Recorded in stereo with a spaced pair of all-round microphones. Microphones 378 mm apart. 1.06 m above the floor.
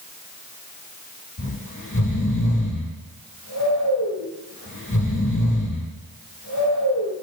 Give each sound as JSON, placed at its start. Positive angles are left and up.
{"t": 1.4, "sound": "snoring", "side_deg": 55, "distance_m": 3.0}